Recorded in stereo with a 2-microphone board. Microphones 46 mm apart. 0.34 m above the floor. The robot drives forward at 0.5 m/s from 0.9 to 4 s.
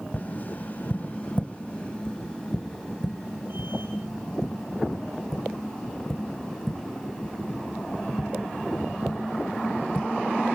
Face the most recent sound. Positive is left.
turn(degrees=10)  # may be behind; listen again after turning